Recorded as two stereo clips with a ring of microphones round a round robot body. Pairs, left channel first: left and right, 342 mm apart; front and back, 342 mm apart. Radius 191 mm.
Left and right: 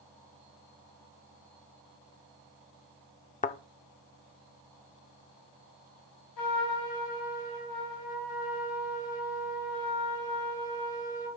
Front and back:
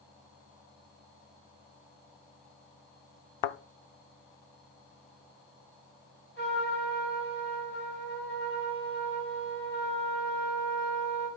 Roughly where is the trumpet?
Ahead left.